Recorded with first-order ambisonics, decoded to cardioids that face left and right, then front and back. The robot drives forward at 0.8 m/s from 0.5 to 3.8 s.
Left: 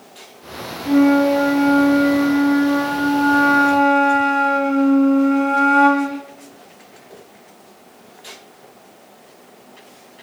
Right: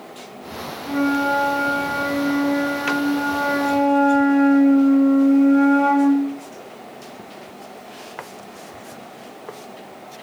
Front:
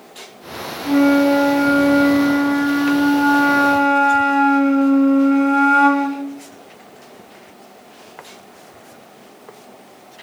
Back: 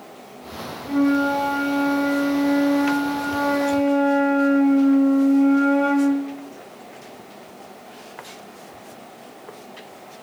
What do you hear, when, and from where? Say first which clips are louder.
0.8 s a flute: left 6 dB, front 6 dB; 20° left, 4 m; by 6.3 s 40° left, 2 m